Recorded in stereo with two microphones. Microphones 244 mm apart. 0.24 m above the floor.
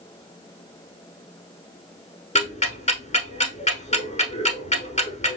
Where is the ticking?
30° left (ahead or behind), 0.9 m.